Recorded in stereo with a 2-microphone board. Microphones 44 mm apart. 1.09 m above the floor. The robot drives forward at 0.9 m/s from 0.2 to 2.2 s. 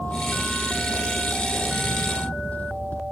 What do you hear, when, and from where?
0.0 s a vehicle: 35° left (ahead or behind)